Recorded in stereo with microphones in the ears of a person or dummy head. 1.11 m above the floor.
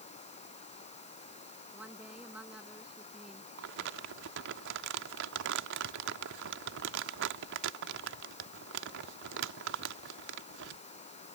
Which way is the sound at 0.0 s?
35° left (ahead or behind).